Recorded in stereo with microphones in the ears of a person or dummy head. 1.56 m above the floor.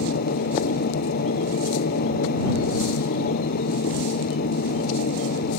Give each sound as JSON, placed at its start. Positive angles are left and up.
{"t": 0.0, "sound": "a machine running", "side_deg": 60}